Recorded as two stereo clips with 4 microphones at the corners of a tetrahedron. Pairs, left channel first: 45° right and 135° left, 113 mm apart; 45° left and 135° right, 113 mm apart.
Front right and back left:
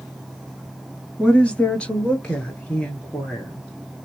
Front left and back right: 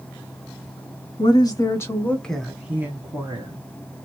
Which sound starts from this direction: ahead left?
A woman speaking, at 1.2 s.